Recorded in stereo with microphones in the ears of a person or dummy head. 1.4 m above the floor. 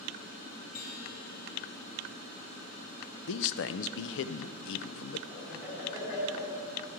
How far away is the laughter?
About 3.5 m.